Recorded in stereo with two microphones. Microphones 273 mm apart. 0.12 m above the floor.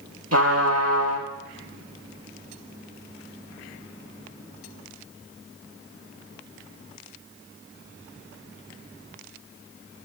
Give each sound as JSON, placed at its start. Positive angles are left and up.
{"t": 0.3, "sound": "a trumpet", "side_deg": -65, "distance_m": 1.3}